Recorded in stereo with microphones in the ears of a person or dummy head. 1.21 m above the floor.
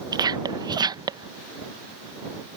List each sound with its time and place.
0.1 s whispering: 20° right (ahead or behind)